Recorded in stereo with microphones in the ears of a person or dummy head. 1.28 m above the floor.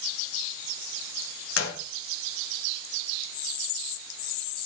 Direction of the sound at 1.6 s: 75° left (ahead or behind).